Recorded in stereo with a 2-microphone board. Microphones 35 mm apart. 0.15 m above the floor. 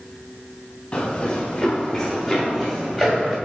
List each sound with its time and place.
0.9 s running footsteps: 30° left (ahead or behind), 2 m; by 3.4 s 10° right (ahead or behind), 3 m